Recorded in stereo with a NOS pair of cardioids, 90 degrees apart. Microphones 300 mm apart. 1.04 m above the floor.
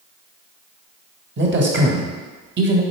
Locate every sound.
1.4 s a man speaking: 40° right, 1.3 m